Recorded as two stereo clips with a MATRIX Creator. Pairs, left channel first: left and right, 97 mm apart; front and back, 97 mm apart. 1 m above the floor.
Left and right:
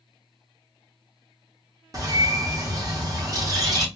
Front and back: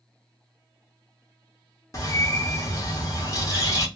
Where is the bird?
45° right, 0.8 m.